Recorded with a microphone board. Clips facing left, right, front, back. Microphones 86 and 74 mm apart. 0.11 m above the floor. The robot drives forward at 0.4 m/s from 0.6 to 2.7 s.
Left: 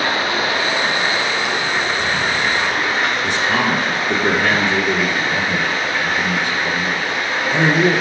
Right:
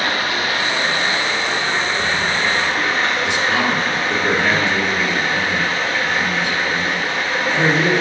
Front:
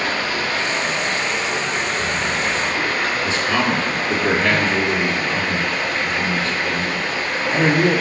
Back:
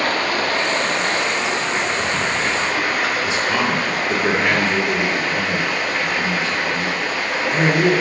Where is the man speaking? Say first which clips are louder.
Even, even; 115° left, 1.8 m.